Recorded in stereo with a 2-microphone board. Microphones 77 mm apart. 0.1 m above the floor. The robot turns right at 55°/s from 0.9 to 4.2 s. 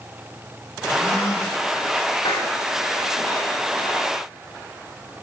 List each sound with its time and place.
0.9 s a gasp: 15° left, 9.5 m; by 1.6 s 50° left, 9.5 m
2.2 s a clap: 80° left, 10 m